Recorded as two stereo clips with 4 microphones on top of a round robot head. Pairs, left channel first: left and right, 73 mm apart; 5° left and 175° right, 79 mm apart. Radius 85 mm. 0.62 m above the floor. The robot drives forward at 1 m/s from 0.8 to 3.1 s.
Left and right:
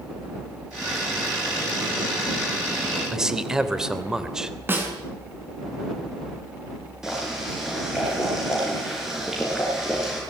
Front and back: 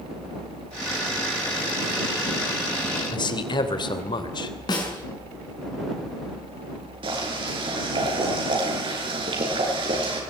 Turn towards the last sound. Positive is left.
turn(degrees=-175)